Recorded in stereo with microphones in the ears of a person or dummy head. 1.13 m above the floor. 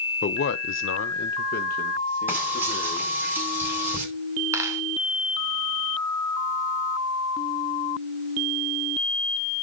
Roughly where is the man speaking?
Left.